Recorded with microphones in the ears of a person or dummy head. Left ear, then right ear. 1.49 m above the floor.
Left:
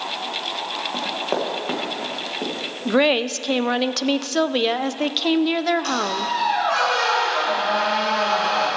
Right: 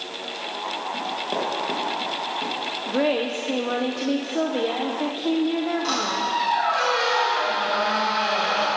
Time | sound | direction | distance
0.9 | running footsteps | 20° left (ahead or behind) | 3.5 m
2.9 | a woman speaking | 70° left (ahead or behind) | 0.5 m
5.8 | a squeak | 40° left (ahead or behind) | 5 m